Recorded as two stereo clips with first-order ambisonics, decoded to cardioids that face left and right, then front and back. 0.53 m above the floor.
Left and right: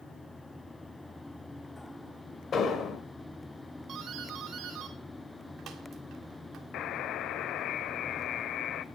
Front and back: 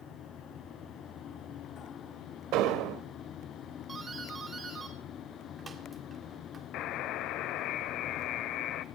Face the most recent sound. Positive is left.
turn(degrees=40)